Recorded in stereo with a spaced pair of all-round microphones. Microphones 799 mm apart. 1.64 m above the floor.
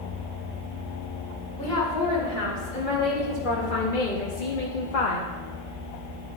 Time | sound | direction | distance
1.6 | a woman speaking | 90° left | 2.5 m